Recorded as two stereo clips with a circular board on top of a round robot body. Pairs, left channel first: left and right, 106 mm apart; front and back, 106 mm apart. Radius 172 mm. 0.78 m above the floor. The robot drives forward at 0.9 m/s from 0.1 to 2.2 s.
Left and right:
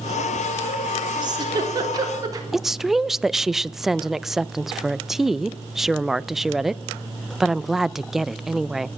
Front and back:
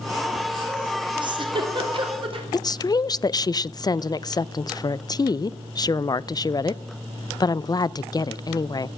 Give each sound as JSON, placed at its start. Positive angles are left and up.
{"t": 1.2, "sound": "a giggle", "azimuth_deg": -135, "distance_m": 3.0}
{"t": 2.5, "sound": "a woman speaking", "azimuth_deg": -5, "distance_m": 0.5}